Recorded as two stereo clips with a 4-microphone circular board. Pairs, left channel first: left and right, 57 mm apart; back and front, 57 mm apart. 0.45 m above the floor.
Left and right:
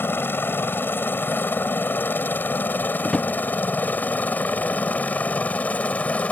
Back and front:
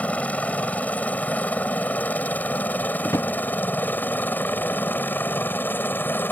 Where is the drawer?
165° left.